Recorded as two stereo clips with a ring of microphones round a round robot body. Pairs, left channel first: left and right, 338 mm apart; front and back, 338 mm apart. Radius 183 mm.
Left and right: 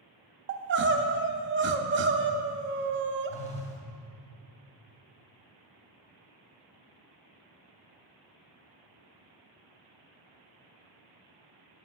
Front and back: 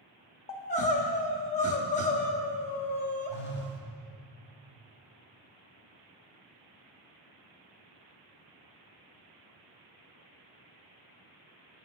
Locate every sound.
0.5 s crying: 55° right, 0.6 m
3.3 s a phone buzzing: 30° left, 1.1 m